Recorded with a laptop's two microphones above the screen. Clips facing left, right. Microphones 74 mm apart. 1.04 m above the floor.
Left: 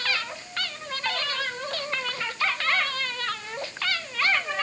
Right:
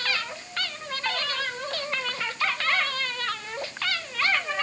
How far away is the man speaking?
No man speaking in this recording.